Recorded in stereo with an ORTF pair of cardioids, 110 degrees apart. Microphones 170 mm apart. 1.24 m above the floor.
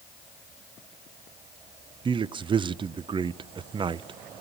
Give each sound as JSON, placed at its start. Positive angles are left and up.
{"t": 2.0, "sound": "a man speaking", "azimuth_deg": -30, "distance_m": 0.5}